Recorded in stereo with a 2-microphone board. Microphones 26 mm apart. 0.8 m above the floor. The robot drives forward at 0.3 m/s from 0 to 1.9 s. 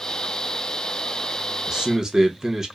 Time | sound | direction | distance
1.7 | a man speaking | 20° right (ahead or behind) | 0.8 m